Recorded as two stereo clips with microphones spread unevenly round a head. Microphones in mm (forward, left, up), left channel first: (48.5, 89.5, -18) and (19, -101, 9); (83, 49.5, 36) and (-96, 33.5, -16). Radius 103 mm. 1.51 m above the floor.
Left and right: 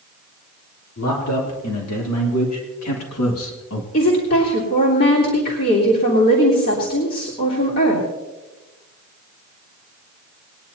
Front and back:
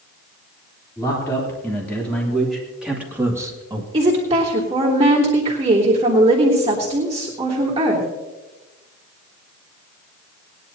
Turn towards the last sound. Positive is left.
turn(degrees=130)